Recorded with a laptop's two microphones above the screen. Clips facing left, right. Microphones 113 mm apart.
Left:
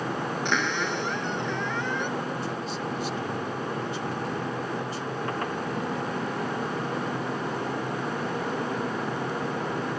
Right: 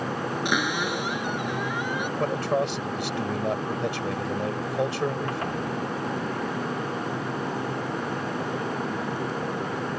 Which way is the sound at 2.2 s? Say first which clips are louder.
Right 7 dB; 75° right (ahead or behind).